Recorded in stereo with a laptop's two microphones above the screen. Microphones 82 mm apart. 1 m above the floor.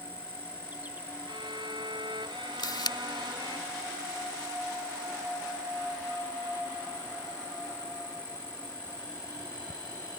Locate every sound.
0.0 s an insect: 20° right (ahead or behind)
1.3 s a violin: 80° right
2.6 s a camera shutter: 60° left (ahead or behind)